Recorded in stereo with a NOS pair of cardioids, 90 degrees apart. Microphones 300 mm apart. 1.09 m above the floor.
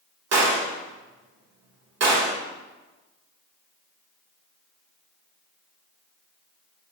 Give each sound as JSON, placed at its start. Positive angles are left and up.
{"t": 0.3, "sound": "a gunshot", "azimuth_deg": -55, "distance_m": 2.0}